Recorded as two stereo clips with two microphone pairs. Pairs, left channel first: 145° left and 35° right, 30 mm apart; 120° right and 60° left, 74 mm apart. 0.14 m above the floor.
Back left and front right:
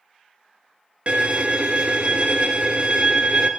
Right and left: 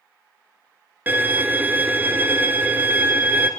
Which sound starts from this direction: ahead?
A violin, at 1.1 s.